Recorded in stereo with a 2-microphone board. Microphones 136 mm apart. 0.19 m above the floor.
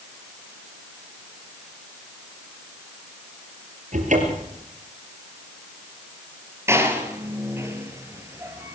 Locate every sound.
3.9 s a cupboard door: 70° right (ahead or behind), 4 m
6.7 s a door slam: 20° right (ahead or behind), 2.5 m